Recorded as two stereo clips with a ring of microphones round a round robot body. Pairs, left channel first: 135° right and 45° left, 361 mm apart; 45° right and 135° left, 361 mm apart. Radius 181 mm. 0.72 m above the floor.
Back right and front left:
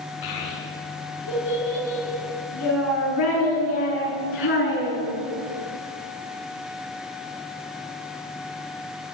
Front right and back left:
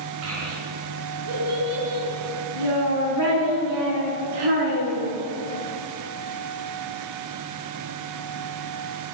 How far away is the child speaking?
About 6.5 m.